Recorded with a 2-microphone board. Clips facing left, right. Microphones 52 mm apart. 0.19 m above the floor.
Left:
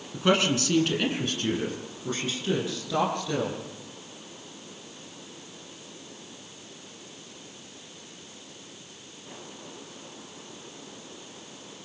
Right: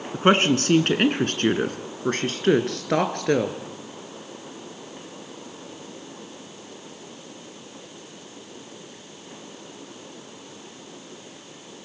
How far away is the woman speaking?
About 1.8 m.